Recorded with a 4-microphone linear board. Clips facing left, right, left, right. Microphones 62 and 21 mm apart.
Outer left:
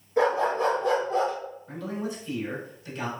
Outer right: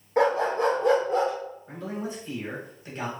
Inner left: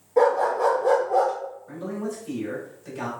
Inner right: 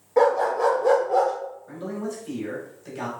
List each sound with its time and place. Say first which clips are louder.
0.2 s a dog barking: outer right 1 dB, even; 55° right (ahead or behind), 1.4 m; by 1.3 s 85° right, 1.6 m
1.7 s a man speaking: outer left 2 dB, inner left 1 dB; 30° right (ahead or behind), 1.5 m